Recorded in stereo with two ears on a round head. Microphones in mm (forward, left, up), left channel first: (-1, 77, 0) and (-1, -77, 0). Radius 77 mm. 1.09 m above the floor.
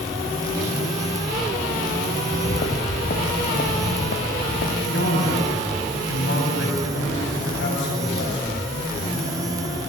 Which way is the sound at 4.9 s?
75° left (ahead or behind).